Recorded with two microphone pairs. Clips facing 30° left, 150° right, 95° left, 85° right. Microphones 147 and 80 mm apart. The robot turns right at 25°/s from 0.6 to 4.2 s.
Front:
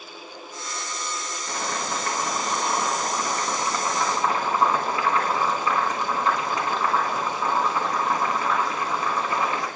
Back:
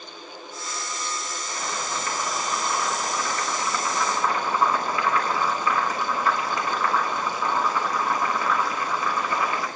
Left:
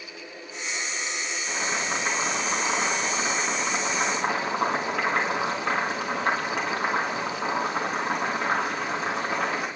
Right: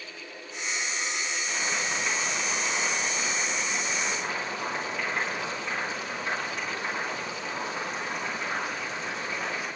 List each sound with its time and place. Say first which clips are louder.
1.5 s boiling: front 3 dB, left 4 dB; 25° left, 4 m; by 9.7 s 95° left, 4 m